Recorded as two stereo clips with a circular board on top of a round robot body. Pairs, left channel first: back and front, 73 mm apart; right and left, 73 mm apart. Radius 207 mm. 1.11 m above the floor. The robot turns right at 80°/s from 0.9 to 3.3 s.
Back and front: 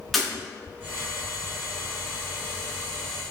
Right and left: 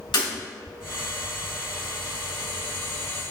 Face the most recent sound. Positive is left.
turn(degrees=100)